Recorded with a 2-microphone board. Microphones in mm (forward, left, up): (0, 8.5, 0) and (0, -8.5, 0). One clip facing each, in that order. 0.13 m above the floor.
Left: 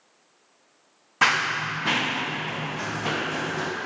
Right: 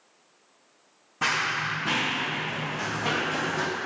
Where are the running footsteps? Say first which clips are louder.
Left 4 dB; 55° left (ahead or behind), 1.5 m; by 3.7 s centre (ahead or behind), 1.8 m.